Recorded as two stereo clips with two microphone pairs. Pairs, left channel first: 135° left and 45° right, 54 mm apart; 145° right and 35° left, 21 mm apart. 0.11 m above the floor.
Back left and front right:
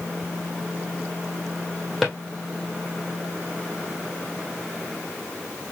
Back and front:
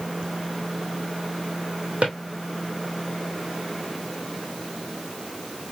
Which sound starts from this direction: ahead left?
A drawer, at 2.0 s.